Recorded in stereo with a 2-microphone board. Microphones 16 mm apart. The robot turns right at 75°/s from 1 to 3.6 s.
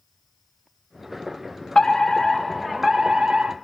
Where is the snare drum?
No snare drum in this recording.